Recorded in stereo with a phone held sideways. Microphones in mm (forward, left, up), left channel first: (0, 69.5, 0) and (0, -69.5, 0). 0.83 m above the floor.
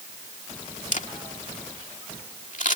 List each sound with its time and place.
0.9 s a camera shutter: 65° left (ahead or behind)